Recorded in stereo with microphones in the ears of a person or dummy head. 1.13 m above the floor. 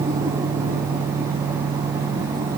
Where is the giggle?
I don't hear a giggle.